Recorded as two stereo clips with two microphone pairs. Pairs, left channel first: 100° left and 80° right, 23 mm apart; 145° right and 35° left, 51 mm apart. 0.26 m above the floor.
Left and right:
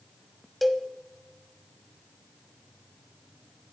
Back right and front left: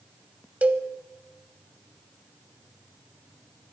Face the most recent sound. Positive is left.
turn(degrees=0)